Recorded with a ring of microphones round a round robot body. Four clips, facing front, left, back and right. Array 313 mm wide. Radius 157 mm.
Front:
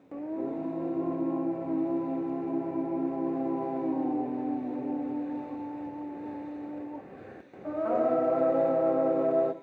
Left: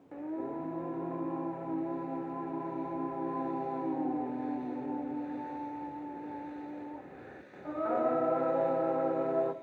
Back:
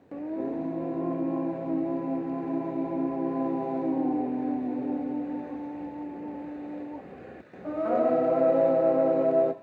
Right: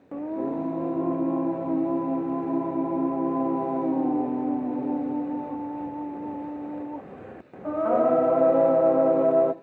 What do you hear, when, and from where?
0.1 s singing: 105° right, 0.7 m